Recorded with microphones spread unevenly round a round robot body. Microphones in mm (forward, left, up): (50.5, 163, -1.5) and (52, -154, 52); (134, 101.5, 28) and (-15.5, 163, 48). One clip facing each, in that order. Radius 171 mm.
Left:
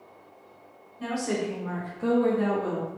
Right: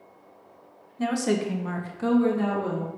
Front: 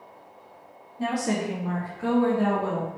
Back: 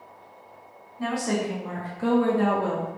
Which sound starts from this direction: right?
A woman speaking, at 1.0 s.